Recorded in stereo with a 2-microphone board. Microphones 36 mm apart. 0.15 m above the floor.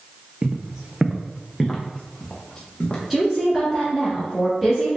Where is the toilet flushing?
I don't hear a toilet flushing.